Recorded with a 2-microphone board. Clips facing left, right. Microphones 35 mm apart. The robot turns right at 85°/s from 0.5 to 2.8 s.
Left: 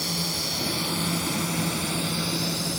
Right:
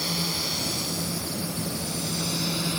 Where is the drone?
5° right (ahead or behind); by 2.8 s 35° right (ahead or behind).